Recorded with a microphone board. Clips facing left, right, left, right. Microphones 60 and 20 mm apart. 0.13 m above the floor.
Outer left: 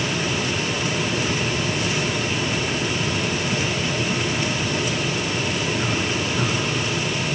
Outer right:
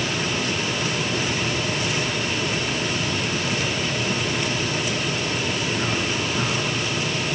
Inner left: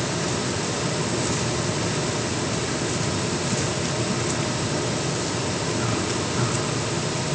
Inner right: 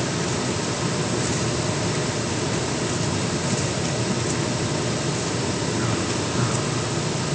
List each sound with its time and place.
Only background noise.